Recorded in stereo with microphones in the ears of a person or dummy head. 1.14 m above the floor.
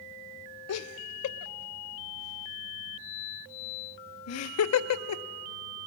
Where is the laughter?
90° left, 0.7 m.